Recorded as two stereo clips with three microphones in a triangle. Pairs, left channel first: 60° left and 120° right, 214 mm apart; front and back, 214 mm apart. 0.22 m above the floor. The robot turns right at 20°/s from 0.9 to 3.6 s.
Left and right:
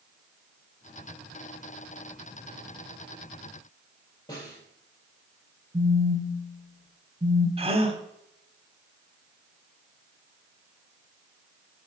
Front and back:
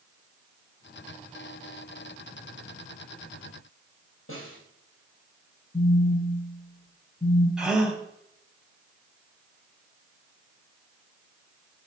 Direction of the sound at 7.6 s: 95° right.